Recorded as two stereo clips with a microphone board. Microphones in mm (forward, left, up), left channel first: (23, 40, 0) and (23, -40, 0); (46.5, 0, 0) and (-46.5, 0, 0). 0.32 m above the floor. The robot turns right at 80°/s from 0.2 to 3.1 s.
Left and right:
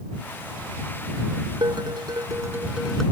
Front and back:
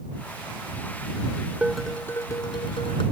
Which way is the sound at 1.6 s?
105° right.